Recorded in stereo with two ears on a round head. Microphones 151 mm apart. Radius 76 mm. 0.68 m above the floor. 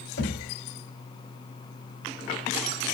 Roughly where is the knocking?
Left.